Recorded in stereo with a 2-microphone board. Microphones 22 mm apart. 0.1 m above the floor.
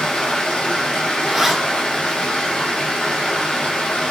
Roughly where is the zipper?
Centre.